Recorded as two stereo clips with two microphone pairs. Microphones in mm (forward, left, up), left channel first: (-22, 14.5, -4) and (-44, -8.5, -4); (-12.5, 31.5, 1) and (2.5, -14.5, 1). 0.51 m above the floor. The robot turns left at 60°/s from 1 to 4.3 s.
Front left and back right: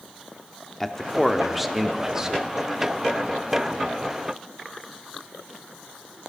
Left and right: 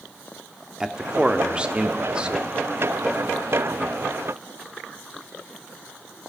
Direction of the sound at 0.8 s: 20° right.